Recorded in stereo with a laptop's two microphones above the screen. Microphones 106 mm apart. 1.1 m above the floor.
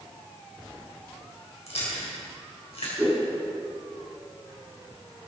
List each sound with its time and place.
1.7 s chewing: 80° left, 3.5 m
3.0 s a whoosh: 15° right (ahead or behind), 4.5 m